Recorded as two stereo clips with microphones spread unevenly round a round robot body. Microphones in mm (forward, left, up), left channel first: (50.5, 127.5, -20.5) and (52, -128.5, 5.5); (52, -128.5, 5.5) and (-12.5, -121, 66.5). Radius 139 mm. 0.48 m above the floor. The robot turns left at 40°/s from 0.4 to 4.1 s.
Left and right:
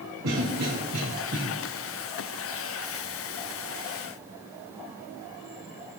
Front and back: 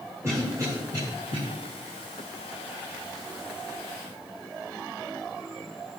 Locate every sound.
0.2 s a cough: 115° right, 3 m; by 1.4 s 155° right, 3 m